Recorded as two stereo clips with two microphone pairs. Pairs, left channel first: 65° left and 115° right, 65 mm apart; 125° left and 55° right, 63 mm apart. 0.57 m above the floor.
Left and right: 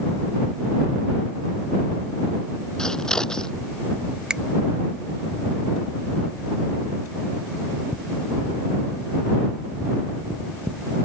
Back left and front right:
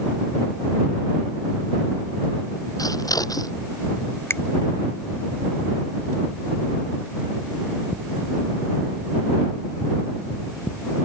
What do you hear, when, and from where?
2.8 s scissors: 145° left
4.3 s a finger snap: 170° left